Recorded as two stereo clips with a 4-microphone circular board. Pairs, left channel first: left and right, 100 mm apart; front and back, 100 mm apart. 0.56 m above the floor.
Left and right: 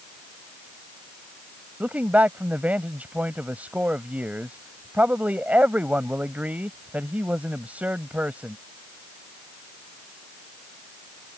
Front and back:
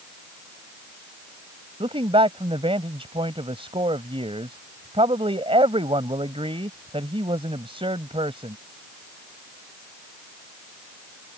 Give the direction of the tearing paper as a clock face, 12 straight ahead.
I don't hear tearing paper.